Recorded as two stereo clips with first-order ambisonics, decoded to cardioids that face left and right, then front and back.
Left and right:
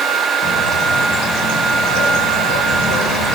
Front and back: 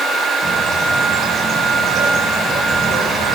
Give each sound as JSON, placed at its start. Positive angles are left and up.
{"t": 0.4, "sound": "a bird", "azimuth_deg": 115, "distance_m": 6.0}